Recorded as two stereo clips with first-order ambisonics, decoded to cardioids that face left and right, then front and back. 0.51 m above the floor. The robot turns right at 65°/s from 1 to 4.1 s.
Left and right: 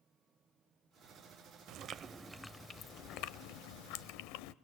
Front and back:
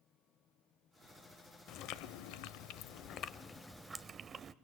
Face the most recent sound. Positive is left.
turn(degrees=110)